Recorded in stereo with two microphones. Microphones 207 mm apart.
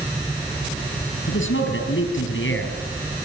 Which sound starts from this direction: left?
A man speaking, at 1.3 s.